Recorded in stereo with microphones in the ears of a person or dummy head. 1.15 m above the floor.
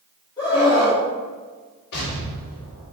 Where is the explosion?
55° left (ahead or behind), 3 m.